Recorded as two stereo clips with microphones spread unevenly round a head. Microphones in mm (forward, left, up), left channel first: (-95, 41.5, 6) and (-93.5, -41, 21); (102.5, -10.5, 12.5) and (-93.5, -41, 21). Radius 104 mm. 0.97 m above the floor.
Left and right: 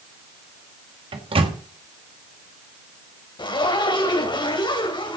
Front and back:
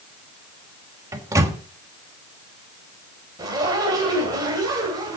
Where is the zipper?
115° left, 3 m.